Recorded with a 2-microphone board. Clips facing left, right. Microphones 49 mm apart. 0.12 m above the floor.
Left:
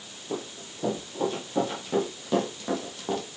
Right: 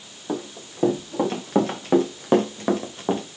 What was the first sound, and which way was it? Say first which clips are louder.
Running footsteps: right 5 dB; 70° right (ahead or behind).